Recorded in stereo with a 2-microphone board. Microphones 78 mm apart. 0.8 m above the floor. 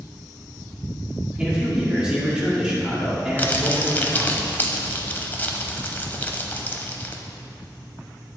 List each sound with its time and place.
1.4 s a man speaking: 10° right (ahead or behind), 1.8 m
3.4 s crumpling: 25° left (ahead or behind), 0.6 m